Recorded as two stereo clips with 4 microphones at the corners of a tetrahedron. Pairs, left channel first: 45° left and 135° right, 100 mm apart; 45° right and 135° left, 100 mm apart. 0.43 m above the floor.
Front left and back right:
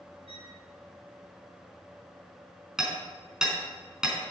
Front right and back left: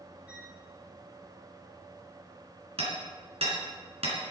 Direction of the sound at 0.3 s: 150° right.